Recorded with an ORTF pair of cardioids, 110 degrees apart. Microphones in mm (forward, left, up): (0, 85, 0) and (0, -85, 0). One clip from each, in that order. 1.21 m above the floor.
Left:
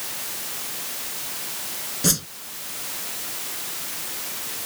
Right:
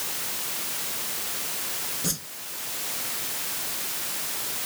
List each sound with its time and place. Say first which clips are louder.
2.0 s a whoosh: left 11 dB; 50° left